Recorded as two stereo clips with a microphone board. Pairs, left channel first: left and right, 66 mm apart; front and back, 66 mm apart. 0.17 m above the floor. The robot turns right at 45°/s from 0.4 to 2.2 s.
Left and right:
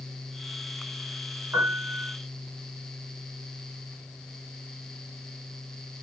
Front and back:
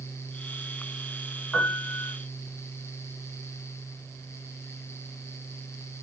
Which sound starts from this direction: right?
A piano, at 1.5 s.